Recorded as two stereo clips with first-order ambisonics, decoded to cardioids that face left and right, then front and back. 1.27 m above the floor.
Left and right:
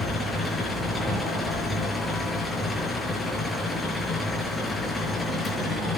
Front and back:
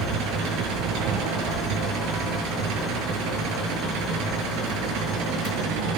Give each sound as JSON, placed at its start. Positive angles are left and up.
{"t": 0.0, "sound": "an engine running", "azimuth_deg": 170, "distance_m": 6.0}